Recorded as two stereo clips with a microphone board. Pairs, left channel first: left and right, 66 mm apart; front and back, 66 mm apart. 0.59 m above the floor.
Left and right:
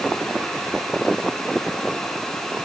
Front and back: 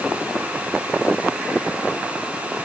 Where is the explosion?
No explosion in this recording.